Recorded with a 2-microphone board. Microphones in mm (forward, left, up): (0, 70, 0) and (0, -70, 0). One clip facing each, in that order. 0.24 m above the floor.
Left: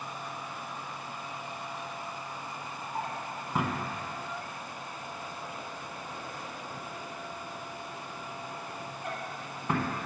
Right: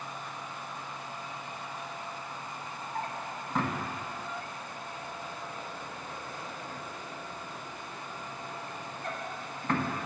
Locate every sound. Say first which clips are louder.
3.0 s a drawer: left 1 dB; 10° left (ahead or behind), 0.9 m